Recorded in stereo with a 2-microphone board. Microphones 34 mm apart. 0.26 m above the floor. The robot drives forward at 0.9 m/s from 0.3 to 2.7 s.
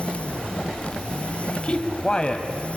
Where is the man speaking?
30° left (ahead or behind), 1.0 m; by 2.5 s 20° left (ahead or behind), 1.4 m.